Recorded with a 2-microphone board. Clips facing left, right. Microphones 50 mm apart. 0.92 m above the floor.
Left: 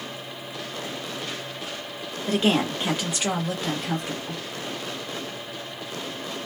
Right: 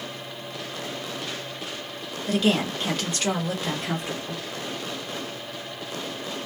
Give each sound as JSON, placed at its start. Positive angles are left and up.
{"t": 2.3, "sound": "a woman speaking", "side_deg": 35, "distance_m": 1.2}